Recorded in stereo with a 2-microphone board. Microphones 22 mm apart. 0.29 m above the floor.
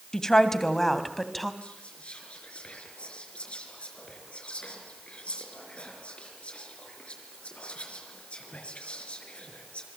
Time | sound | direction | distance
0.1 | a woman speaking | 20° left (ahead or behind) | 2 m
1.6 | whispering | 50° left (ahead or behind) | 4.5 m